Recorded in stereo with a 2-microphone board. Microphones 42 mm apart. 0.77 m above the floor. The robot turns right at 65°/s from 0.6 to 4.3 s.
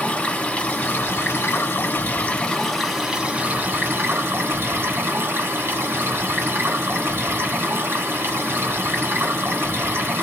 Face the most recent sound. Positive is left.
turn(degrees=-90)